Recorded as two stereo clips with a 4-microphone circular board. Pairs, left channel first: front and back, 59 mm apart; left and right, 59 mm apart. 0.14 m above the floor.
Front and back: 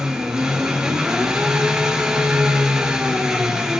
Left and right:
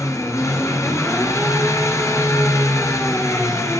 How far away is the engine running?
About 1.3 m.